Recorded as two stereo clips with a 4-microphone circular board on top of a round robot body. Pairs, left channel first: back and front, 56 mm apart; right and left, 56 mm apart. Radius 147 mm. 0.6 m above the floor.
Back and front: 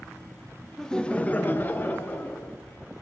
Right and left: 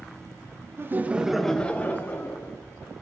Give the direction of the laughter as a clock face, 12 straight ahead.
9 o'clock.